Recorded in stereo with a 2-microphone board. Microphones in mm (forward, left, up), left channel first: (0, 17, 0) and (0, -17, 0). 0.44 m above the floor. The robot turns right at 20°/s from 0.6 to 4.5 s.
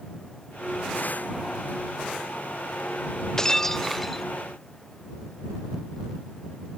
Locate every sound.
3.4 s breaking glass: 20° left (ahead or behind); by 4.2 s 5° left (ahead or behind)